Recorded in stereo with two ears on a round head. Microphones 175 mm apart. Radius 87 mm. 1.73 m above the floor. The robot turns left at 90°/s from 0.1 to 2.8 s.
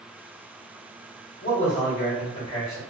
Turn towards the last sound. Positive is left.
turn(degrees=10)